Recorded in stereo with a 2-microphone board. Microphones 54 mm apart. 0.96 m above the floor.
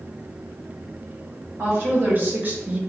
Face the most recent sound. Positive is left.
turn(degrees=-20)  # may be behind; listen again after turning